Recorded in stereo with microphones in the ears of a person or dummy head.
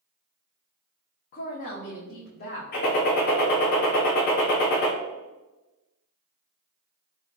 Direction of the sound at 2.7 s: 45° left (ahead or behind).